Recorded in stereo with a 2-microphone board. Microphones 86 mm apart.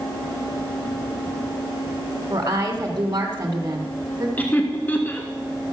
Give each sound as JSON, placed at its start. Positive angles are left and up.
{"t": 2.3, "sound": "a woman speaking", "side_deg": -35, "distance_m": 2.0}
{"t": 4.4, "sound": "laughter", "side_deg": 20, "distance_m": 1.4}